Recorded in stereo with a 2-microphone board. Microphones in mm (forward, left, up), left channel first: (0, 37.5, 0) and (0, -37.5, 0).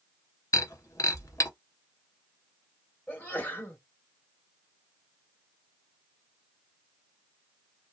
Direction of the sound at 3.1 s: 25° left (ahead or behind).